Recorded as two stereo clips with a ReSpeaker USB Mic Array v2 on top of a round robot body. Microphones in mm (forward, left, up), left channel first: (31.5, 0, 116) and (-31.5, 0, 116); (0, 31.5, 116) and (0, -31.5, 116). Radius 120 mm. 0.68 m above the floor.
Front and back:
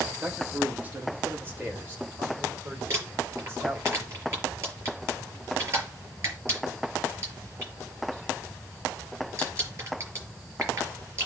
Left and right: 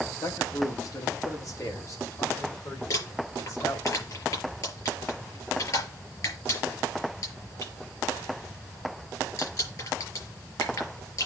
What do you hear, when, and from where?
0.2 s a man speaking: 115° left, 2.0 m; by 3.9 s 125° left, 5 m
2.9 s crumpling: 130° left, 5.5 m